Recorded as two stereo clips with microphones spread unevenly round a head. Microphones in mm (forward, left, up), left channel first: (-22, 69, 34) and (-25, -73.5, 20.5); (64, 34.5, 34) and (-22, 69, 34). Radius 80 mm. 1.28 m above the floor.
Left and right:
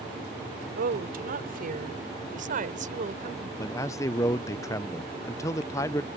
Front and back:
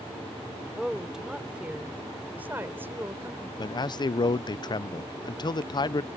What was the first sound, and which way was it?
A woman speaking, 115° right.